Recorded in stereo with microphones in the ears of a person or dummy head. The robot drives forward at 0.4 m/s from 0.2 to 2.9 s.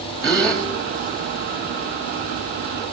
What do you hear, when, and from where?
0.2 s a gasp: 10° left (ahead or behind), 1.9 m